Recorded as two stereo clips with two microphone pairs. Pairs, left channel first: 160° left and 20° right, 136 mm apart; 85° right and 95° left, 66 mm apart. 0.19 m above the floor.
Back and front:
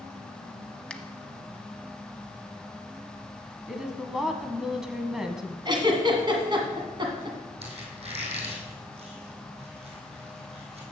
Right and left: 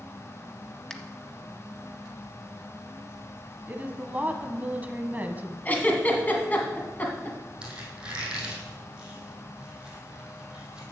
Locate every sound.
0.9 s a finger snap: 135° right, 0.8 m
3.7 s a woman speaking: 60° left, 1.1 m
5.7 s a giggle: 45° right, 1.7 m
7.6 s a squeak: 15° left, 2.5 m